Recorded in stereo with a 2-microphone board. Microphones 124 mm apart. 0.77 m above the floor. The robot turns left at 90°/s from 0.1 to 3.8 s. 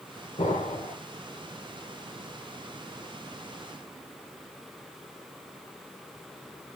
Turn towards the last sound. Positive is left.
turn(degrees=160)